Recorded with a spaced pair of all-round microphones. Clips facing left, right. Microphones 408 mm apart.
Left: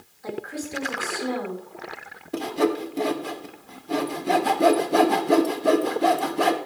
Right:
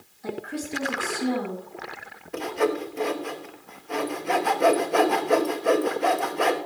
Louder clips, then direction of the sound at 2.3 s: Left 2 dB; 50° left (ahead or behind).